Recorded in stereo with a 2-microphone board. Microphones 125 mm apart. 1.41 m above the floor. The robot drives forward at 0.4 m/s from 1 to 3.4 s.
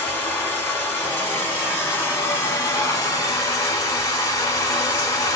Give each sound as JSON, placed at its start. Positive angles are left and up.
{"t": 0.0, "sound": "running water", "side_deg": 15, "distance_m": 1.5}